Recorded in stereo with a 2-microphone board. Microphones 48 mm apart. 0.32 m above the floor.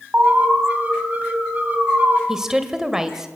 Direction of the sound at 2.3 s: 10° right (ahead or behind).